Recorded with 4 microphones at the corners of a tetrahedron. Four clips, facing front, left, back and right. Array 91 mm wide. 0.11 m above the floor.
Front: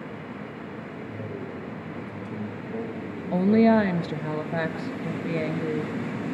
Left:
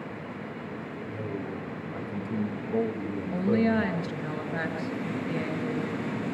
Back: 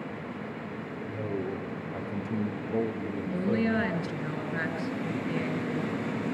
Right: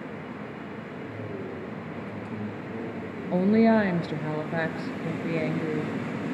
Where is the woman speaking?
50° right, 1.5 m.